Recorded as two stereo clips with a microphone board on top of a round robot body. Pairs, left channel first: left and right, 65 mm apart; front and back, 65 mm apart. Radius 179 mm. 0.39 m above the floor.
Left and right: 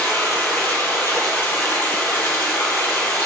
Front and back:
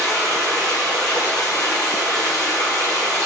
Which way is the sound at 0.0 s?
40° left.